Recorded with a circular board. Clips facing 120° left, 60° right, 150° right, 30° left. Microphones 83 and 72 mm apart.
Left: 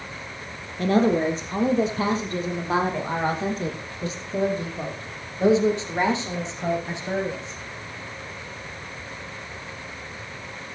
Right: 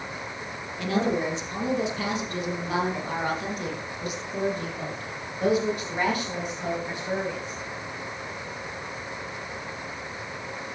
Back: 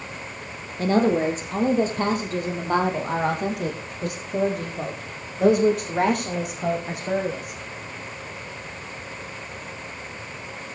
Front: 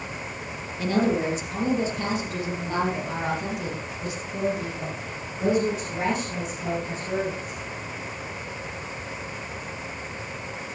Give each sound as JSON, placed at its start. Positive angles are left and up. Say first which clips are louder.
{"t": 0.8, "sound": "a woman speaking", "louder": "left 6 dB, back 3 dB", "azimuth_deg": 165, "distance_m": 4.5}